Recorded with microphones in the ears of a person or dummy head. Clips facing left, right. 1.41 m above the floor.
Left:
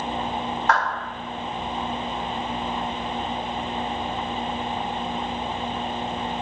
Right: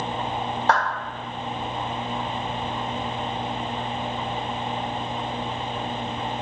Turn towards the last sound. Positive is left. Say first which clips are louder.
# right 1 dB
turn(degrees=-30)  # may be behind; listen again after turning